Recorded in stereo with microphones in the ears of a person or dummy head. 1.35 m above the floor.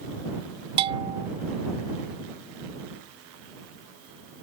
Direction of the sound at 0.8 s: 30° right (ahead or behind).